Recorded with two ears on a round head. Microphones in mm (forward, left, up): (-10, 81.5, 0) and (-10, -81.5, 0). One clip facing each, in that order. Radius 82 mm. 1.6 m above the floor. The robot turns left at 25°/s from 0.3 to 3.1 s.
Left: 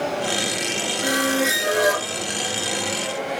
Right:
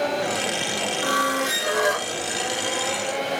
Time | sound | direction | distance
1.0 | a squeak | 20° left (ahead or behind) | 0.7 m